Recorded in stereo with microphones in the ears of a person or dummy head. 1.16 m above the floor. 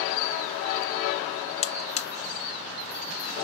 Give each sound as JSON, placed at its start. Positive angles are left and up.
{"t": 1.6, "sound": "a buzzer", "side_deg": 30, "distance_m": 0.5}